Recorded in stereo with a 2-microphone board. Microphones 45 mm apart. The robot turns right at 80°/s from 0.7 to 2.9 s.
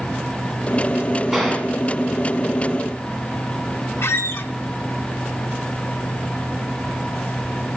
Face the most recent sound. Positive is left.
turn(degrees=65)  # may be behind; listen again after turning